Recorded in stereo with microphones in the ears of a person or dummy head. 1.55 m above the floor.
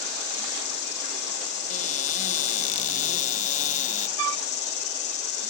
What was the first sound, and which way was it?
An insect, 55° left (ahead or behind).